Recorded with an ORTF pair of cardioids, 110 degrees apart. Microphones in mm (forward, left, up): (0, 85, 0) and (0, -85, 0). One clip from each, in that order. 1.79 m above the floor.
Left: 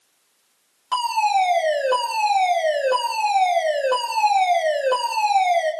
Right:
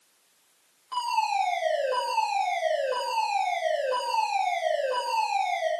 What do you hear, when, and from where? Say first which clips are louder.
0.9 s a fire alarm: left 7 dB; 65° left, 8 m